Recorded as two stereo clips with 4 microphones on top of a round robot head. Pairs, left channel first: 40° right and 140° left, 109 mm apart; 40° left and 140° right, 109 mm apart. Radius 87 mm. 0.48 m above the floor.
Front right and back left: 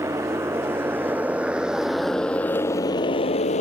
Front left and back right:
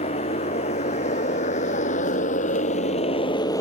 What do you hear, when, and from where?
0.0 s a motorcycle: 70° left; by 3.6 s 20° right